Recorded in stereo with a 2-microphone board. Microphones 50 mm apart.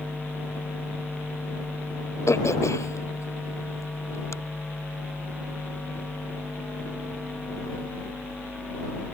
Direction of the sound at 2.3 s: 70° left (ahead or behind).